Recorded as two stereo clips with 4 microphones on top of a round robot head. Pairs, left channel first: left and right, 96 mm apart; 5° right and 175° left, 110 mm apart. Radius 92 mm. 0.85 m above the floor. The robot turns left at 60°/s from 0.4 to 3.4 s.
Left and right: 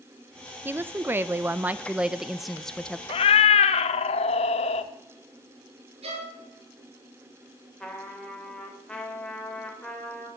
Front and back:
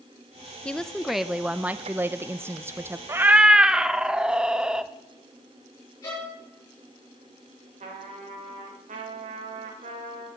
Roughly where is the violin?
Right.